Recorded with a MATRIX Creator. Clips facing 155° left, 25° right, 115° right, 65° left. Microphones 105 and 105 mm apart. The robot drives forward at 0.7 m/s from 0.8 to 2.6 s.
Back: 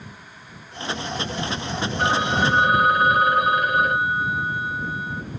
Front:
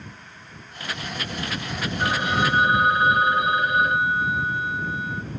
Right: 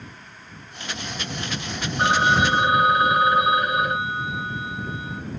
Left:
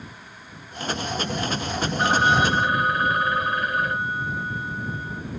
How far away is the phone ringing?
About 1.2 m.